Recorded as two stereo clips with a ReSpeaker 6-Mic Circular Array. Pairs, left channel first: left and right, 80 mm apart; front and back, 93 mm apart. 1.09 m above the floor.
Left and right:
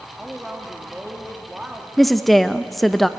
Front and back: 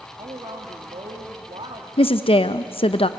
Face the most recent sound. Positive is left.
turn(degrees=0)